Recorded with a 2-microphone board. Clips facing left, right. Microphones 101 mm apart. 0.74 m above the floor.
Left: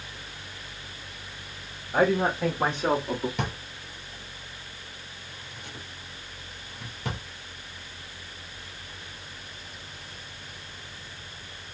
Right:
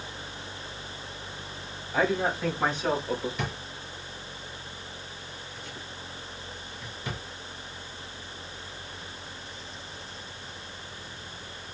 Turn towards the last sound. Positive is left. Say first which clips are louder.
# left 2 dB
turn(degrees=70)  # may be behind; listen again after turning